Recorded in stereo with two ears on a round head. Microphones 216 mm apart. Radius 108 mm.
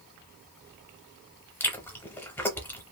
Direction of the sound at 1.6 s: 10° left (ahead or behind).